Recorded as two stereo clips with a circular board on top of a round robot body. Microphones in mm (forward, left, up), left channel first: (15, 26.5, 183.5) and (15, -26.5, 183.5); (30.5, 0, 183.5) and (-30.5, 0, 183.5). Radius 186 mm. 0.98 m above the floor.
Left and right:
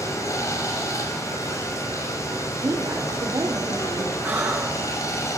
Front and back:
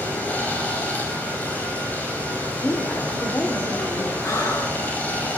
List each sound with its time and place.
0.0 s running water: 70° left, 6 m
2.6 s a woman speaking: 60° right, 4 m
4.2 s breathing: 30° right, 8.5 m